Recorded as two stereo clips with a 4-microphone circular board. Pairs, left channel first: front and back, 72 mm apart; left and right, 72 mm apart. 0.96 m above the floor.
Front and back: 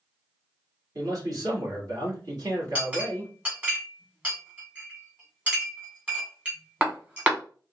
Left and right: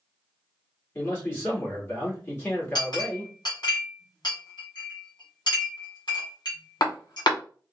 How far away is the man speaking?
About 1.8 m.